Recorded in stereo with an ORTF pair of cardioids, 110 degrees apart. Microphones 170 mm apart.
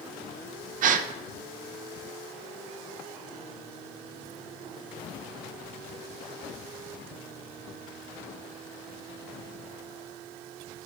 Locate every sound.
0.8 s a gasp: 55° right, 0.5 m